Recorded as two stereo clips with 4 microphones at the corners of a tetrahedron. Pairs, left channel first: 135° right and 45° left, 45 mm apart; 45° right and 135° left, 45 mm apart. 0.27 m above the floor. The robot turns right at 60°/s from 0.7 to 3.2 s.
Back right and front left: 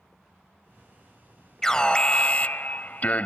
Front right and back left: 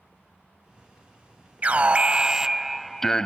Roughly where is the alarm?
Behind left.